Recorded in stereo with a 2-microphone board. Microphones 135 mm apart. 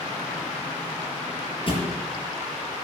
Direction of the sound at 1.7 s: 40° left (ahead or behind).